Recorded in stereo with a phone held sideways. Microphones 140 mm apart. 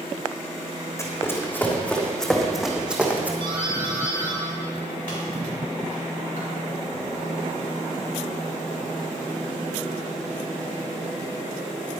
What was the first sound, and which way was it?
Running footsteps, 20° left (ahead or behind).